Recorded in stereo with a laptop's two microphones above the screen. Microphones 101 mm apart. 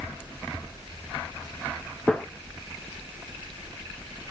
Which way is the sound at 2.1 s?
5° left (ahead or behind).